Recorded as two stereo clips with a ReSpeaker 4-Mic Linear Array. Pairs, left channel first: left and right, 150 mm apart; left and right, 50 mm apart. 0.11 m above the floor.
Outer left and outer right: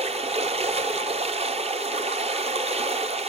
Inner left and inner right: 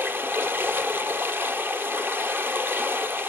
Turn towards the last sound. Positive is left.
turn(degrees=-45)  # may be behind; listen again after turning